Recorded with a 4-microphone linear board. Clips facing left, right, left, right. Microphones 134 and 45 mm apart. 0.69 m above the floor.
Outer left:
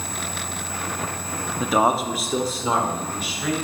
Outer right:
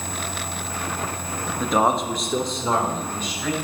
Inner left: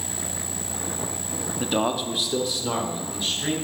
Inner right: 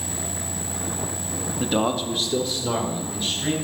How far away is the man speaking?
About 0.7 m.